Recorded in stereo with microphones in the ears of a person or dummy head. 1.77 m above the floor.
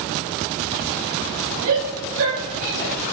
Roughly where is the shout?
Right.